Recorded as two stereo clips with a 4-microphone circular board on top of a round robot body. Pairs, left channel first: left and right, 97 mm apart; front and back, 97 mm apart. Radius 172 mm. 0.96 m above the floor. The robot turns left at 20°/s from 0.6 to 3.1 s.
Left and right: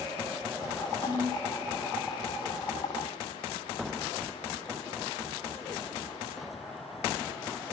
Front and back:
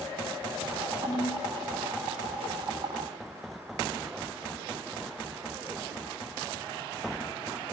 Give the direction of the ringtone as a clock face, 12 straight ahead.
11 o'clock.